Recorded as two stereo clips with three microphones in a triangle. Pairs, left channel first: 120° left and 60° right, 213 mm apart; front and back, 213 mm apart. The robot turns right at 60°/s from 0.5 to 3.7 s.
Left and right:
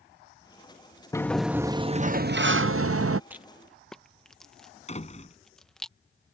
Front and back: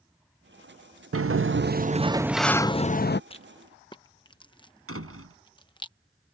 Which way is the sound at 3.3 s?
10° left.